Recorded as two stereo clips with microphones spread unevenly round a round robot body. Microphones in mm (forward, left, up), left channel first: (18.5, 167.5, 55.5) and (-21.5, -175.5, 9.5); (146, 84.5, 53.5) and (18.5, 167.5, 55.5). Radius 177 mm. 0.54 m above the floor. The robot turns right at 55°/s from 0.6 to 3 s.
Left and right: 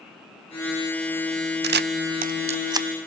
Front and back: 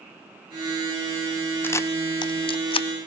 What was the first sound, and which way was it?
A camera shutter, 100° right.